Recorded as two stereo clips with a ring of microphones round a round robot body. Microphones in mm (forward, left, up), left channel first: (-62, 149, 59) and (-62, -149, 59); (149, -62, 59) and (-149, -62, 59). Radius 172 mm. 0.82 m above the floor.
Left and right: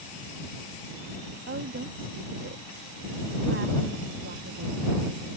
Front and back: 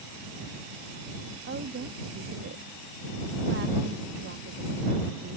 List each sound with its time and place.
1.5 s a woman speaking: 135° right